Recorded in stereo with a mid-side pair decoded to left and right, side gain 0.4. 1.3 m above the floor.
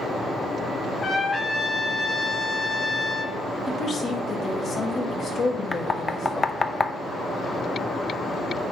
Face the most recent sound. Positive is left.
turn(degrees=35)